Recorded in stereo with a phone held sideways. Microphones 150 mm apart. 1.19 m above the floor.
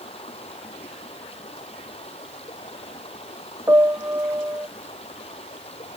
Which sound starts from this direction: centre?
A piano, at 3.7 s.